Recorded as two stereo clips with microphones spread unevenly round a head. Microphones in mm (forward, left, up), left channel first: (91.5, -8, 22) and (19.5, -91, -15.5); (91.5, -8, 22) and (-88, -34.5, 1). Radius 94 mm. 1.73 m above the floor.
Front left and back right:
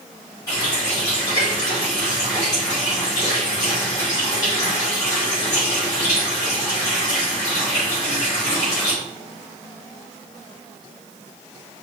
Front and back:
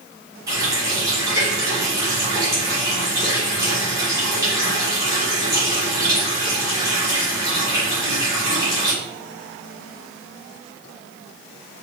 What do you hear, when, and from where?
0.5 s a running tap: 115° left, 3 m